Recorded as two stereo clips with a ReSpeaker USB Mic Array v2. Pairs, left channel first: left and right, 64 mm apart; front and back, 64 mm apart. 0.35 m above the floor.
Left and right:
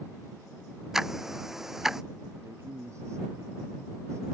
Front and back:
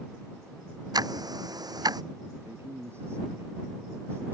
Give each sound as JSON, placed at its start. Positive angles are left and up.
{"t": 0.9, "sound": "ticking", "azimuth_deg": -175}
{"t": 2.4, "sound": "a man speaking", "azimuth_deg": -130}